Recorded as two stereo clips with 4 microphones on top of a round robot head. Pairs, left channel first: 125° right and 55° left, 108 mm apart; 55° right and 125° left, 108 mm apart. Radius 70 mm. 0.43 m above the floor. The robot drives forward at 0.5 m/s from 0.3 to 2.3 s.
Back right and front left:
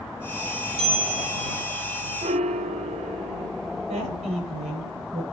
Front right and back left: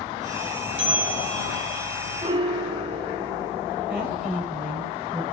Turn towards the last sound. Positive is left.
turn(degrees=50)